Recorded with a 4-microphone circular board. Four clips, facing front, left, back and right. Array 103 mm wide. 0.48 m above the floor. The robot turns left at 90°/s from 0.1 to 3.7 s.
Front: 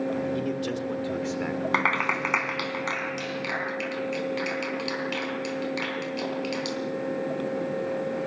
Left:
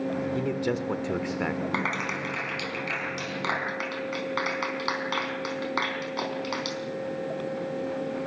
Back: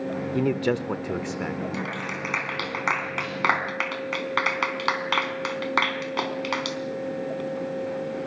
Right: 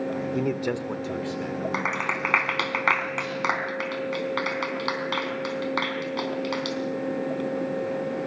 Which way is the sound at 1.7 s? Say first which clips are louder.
Right 2 dB, front 6 dB; 10° right.